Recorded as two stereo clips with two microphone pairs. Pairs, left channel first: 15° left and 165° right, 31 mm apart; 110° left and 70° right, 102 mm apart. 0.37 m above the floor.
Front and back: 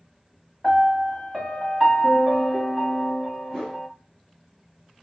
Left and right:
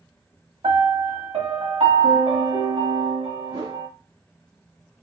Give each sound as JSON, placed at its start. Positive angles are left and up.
{"t": 0.6, "sound": "a piano", "azimuth_deg": -70, "distance_m": 1.2}
{"t": 3.5, "sound": "a whoosh", "azimuth_deg": -50, "distance_m": 1.9}